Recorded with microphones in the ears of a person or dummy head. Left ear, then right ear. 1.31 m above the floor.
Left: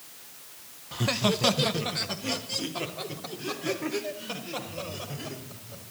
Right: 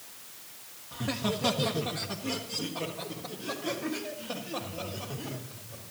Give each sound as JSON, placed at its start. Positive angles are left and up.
{"t": 0.9, "sound": "laughter", "side_deg": 85, "distance_m": 0.8}